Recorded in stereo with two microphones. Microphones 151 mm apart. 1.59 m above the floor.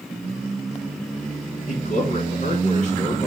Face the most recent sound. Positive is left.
turn(degrees=55)  # may be behind; listen again after turning